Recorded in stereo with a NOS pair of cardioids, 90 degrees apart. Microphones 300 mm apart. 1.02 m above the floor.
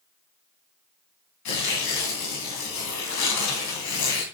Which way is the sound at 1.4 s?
70° left.